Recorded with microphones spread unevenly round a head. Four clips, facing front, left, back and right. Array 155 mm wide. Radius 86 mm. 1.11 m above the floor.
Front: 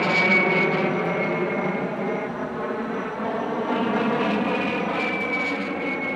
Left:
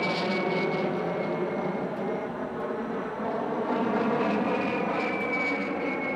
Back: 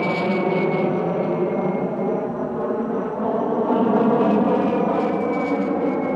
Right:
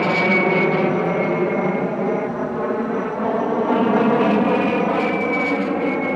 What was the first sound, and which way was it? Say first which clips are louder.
An aircraft: right 9 dB, back 1 dB; 105° right.